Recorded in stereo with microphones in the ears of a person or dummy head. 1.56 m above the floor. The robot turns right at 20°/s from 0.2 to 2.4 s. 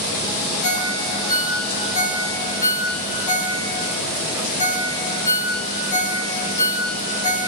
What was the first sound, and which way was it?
A ringtone, 70° left (ahead or behind).